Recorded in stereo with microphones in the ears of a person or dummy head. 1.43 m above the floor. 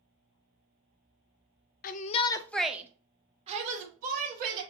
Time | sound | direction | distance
1.8 | a shout | 45° left (ahead or behind) | 0.6 m